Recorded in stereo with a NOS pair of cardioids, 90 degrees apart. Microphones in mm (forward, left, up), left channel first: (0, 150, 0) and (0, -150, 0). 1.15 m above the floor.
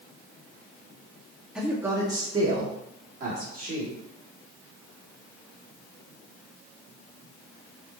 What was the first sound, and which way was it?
A man speaking, straight ahead.